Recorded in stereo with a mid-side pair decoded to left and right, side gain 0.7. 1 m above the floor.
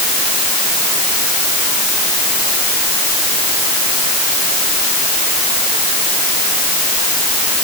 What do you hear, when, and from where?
Only background noise.